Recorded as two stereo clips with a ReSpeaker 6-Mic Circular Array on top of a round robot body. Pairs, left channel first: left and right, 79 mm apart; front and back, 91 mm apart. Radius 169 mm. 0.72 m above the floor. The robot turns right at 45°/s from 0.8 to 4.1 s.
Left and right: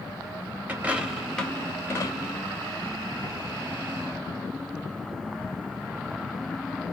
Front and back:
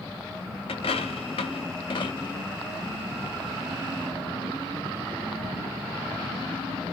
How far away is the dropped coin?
About 0.9 m.